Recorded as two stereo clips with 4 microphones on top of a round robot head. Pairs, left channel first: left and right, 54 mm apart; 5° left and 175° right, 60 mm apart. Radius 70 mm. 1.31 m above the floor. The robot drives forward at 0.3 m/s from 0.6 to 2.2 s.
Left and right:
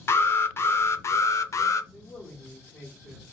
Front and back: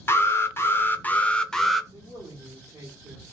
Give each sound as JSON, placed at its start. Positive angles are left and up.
{"t": 0.1, "sound": "an alarm", "azimuth_deg": 50, "distance_m": 0.6}
{"t": 1.9, "sound": "a man speaking", "azimuth_deg": 165, "distance_m": 0.9}